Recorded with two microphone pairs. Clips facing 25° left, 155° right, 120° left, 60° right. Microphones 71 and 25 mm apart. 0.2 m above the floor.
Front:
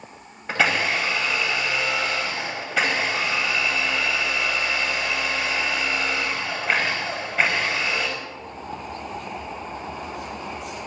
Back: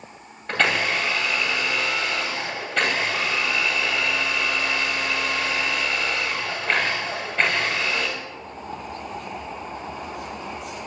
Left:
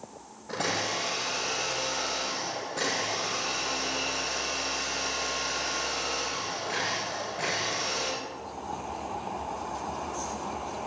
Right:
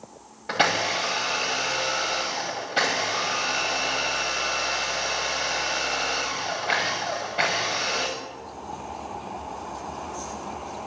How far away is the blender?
About 7 m.